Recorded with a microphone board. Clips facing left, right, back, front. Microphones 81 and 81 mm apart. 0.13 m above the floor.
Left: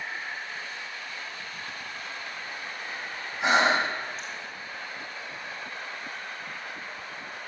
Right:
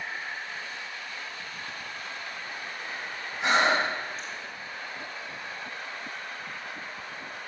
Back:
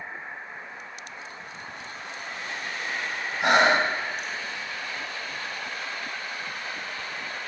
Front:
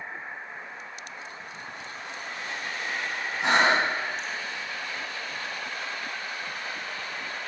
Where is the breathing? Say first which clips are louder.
Left 1 dB, back 2 dB; 170° left, 3 m.